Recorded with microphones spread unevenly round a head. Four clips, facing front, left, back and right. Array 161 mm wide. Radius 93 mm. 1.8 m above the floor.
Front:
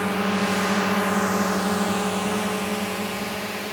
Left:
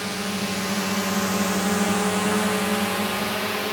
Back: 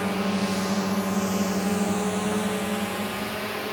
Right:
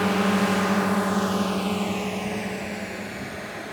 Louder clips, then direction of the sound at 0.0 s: Right 7 dB, front 2 dB; 105° right.